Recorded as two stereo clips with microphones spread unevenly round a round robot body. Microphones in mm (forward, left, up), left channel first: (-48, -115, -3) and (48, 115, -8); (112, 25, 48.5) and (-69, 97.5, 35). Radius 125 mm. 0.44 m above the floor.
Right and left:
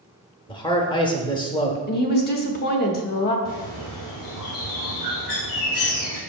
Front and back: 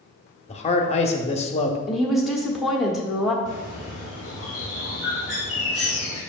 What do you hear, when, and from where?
0.5 s a man speaking: 55° right, 0.8 m
1.9 s a woman speaking: 120° right, 1.0 m
3.5 s a bird: 110° right, 3 m